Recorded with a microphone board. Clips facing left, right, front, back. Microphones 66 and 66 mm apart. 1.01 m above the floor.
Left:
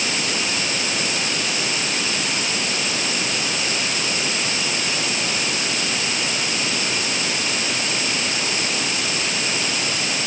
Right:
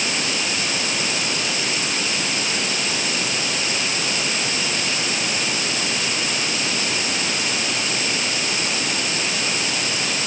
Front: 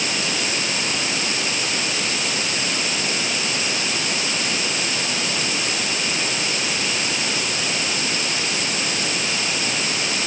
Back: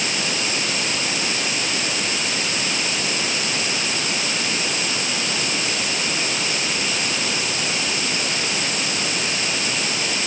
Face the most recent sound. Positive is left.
No sound to turn to.